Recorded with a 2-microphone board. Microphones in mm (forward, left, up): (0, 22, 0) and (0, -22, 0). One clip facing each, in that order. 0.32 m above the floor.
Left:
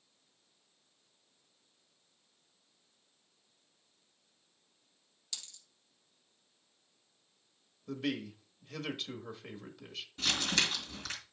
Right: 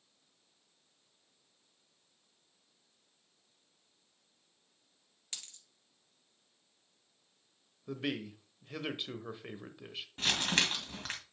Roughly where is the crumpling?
Right.